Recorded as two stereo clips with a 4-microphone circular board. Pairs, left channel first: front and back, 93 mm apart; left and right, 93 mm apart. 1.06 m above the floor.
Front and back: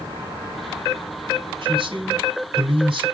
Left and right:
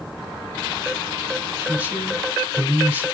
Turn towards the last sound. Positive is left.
turn(degrees=-165)